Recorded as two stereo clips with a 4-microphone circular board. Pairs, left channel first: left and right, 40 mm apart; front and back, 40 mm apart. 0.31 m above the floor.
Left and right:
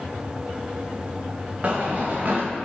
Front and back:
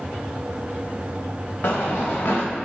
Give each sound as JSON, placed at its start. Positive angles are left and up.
{"t": 1.6, "sound": "running footsteps", "azimuth_deg": -30, "distance_m": 1.3}